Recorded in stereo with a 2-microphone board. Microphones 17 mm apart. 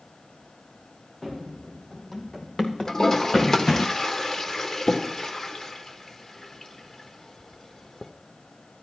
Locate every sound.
1.2 s running footsteps: 20° left (ahead or behind), 3.5 m; by 3.9 s 40° left (ahead or behind), 1.3 m
2.9 s a toilet flushing: 25° left (ahead or behind), 1.0 m